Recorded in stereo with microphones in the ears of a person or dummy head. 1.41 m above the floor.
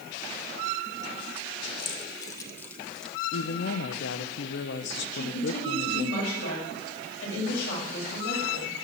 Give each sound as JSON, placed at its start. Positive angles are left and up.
{"t": 1.8, "sound": "keys jangling", "side_deg": 30, "distance_m": 1.4}
{"t": 3.3, "sound": "a woman speaking", "side_deg": 65, "distance_m": 1.1}
{"t": 5.1, "sound": "a woman speaking", "side_deg": 80, "distance_m": 7.0}